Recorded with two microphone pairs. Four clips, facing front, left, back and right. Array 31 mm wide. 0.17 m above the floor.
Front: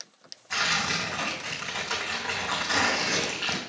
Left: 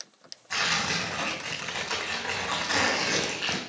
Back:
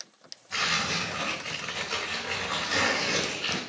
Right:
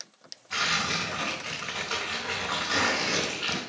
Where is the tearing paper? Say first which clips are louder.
Even, front 1 dB; 50° left, 3.5 m.